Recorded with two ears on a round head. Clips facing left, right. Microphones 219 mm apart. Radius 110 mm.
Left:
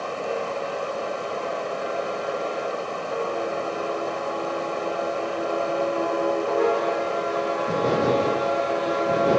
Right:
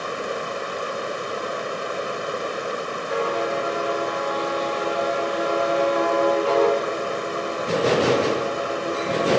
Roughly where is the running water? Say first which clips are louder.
Left 1 dB; right.